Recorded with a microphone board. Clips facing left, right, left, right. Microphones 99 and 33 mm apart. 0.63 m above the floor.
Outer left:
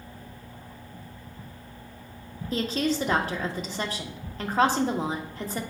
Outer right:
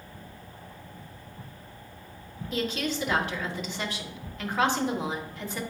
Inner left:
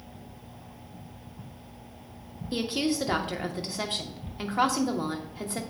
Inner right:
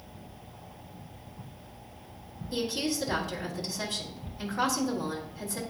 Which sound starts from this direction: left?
A woman speaking, at 2.5 s.